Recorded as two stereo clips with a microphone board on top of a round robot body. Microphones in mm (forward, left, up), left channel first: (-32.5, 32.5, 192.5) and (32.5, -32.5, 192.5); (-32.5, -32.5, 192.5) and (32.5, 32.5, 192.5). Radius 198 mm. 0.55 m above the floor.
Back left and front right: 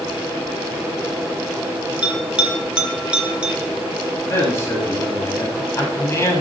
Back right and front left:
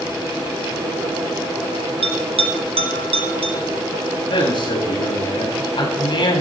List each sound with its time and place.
2.0 s a bell: 35° left, 1.6 m
4.3 s a man speaking: 165° right, 7 m